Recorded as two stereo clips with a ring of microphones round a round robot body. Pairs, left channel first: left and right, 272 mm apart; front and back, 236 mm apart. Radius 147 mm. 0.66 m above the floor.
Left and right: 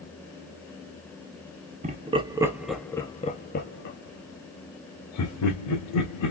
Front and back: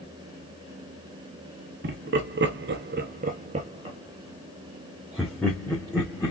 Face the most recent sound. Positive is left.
turn(degrees=85)